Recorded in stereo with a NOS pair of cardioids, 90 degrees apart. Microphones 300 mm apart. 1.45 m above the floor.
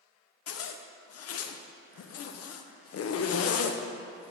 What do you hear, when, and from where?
0.5 s a zipper: 55° left, 0.7 m